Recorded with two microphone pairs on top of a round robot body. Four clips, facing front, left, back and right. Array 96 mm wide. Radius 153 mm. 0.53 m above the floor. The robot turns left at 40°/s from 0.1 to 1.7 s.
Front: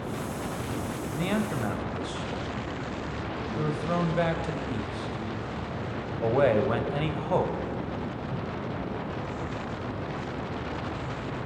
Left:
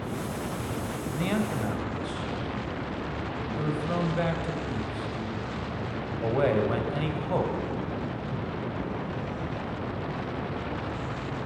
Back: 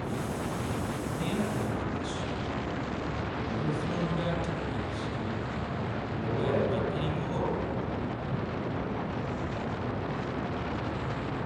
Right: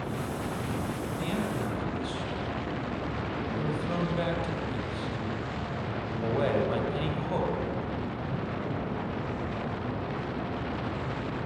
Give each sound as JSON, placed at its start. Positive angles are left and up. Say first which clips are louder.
{"t": 1.1, "sound": "a man speaking", "louder": "left 5 dB, front 4 dB", "azimuth_deg": 35, "distance_m": 4.0}